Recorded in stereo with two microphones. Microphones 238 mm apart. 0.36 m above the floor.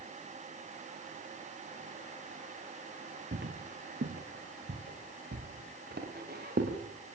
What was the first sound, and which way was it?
Footsteps, 50° right (ahead or behind).